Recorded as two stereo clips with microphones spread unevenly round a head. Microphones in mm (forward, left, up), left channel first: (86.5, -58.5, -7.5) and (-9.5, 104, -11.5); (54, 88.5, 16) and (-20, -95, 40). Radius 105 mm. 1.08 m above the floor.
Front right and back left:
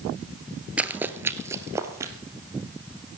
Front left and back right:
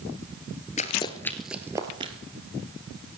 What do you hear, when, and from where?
0.8 s running footsteps: 40° left, 1.1 m; by 2.1 s 165° right, 1.6 m